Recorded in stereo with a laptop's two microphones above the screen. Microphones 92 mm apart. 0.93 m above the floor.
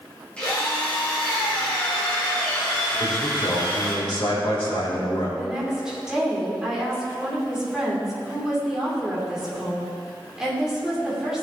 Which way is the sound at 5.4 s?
10° right (ahead or behind).